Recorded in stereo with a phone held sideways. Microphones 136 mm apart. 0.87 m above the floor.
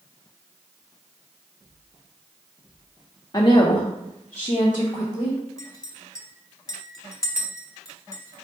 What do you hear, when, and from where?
3.3 s a woman speaking: 30° left (ahead or behind), 0.6 m; by 5.4 s 35° left (ahead or behind), 1.2 m
5.6 s a clink: 25° left (ahead or behind), 0.8 m